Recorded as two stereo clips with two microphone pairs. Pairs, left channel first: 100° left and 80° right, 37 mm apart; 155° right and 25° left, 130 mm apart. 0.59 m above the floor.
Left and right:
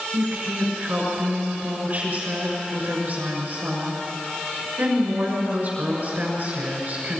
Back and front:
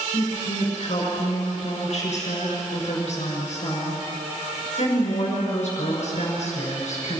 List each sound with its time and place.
0.1 s a woman speaking: 125° right, 6.5 m